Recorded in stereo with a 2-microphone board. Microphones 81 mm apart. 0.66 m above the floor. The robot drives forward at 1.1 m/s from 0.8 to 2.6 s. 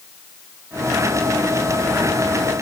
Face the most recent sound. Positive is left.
No sound to turn to.